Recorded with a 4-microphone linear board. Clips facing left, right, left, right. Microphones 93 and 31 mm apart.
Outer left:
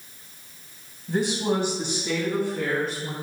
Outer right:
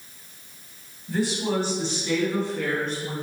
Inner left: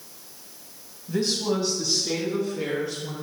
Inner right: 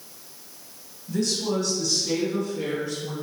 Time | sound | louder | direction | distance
1.1 | a woman speaking | outer left 1 dB, inner left 1 dB | 25° left (ahead or behind) | 1.7 m